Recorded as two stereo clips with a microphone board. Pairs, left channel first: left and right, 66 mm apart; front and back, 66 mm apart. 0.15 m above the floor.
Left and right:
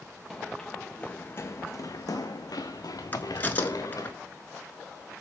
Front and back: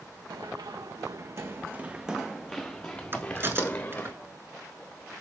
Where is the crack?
140° left, 0.6 m.